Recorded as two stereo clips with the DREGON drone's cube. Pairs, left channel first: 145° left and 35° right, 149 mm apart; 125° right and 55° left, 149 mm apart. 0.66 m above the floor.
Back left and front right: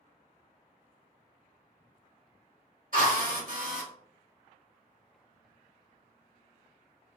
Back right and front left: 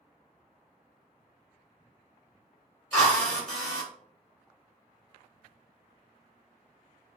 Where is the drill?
40° right, 1.9 m.